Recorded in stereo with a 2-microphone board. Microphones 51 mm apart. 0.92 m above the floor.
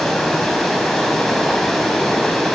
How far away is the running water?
About 4 m.